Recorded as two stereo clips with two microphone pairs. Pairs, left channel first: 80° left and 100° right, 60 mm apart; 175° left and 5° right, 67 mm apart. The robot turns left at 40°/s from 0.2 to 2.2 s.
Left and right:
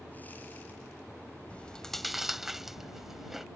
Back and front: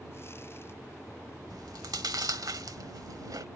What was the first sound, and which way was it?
Chewing, 15° left.